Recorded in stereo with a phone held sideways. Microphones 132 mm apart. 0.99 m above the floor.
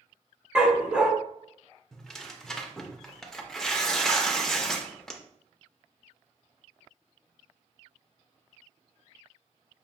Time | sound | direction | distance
0.6 | a dog barking | 10° right (ahead or behind) | 0.8 m
1.9 | tearing paper | 5° left (ahead or behind) | 0.5 m